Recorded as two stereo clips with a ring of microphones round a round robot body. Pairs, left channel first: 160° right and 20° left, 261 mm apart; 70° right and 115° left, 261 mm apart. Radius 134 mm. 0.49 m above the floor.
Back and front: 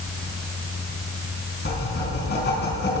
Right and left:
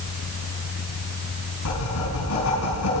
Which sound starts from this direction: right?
Writing, at 1.6 s.